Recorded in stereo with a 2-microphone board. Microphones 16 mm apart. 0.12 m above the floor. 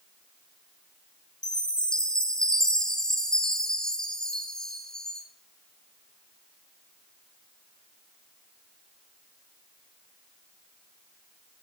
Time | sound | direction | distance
1.4 | a chime | 45° left (ahead or behind) | 1.8 m